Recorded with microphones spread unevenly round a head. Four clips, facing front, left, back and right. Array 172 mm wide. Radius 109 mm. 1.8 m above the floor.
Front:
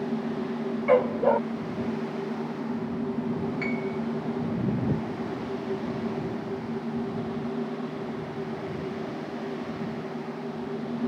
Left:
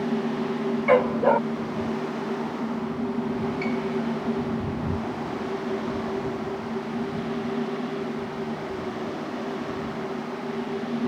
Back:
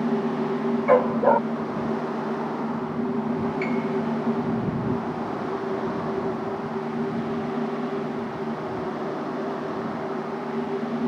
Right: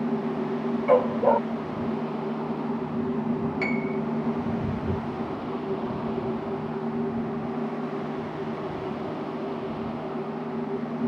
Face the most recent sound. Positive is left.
turn(degrees=-80)